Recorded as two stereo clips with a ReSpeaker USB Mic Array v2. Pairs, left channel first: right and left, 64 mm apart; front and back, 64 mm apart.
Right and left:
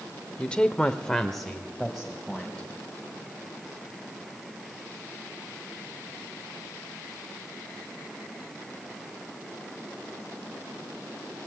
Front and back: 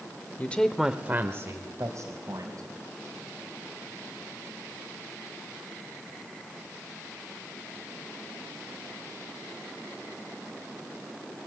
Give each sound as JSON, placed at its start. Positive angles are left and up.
{"t": 0.4, "sound": "a woman speaking", "azimuth_deg": -25, "distance_m": 1.2}